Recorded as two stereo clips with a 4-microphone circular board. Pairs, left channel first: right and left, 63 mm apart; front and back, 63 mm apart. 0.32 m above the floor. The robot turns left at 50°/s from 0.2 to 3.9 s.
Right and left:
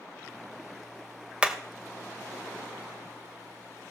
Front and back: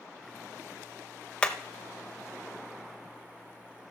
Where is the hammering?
45° left, 0.9 m; by 1.6 s 40° left, 0.9 m.